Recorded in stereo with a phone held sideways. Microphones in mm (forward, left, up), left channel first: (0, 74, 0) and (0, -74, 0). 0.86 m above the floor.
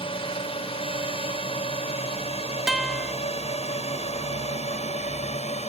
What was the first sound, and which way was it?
A drone, 40° left (ahead or behind).